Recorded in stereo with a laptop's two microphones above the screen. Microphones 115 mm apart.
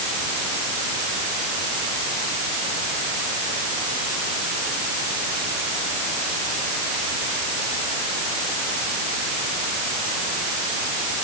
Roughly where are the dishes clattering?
No dishes clattering in this recording.